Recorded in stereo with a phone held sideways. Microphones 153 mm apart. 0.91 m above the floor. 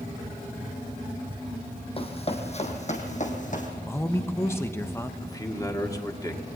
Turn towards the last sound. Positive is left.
turn(degrees=20)  # may be behind; listen again after turning